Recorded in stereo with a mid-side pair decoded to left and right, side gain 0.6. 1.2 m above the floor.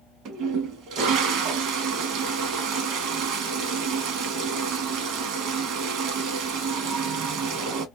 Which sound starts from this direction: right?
A toilet flushing, at 0.2 s.